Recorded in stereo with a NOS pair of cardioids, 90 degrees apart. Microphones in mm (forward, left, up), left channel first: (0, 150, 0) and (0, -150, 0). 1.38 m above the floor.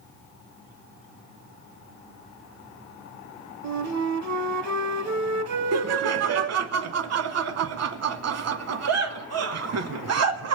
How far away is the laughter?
About 1.0 m.